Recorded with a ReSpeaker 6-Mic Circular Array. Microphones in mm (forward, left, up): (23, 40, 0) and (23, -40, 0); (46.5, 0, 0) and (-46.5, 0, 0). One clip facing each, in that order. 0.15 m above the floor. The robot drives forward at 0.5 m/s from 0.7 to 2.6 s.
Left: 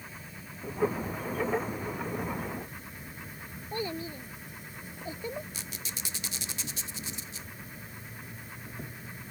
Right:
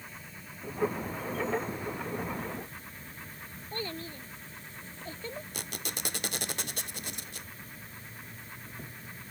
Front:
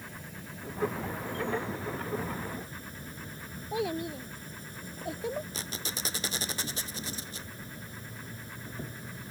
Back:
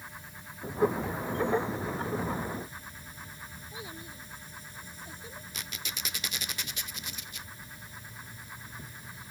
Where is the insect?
10° left; by 9.3 s 15° left.